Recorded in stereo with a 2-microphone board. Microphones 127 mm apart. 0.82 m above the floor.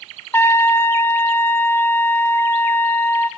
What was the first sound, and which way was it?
A trumpet, 20° left (ahead or behind).